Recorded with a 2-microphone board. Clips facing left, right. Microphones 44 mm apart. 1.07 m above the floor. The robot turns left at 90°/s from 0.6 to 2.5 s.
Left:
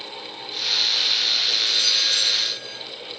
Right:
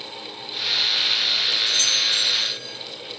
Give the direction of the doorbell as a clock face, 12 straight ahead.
11 o'clock.